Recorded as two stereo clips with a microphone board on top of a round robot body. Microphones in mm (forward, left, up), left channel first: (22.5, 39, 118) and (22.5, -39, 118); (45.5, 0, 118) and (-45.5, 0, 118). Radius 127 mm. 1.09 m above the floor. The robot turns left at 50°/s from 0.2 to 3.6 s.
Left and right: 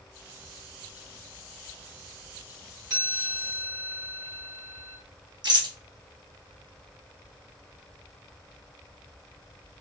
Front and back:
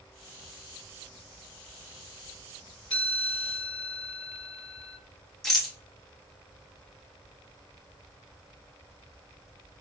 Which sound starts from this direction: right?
A rattle, at 5.4 s.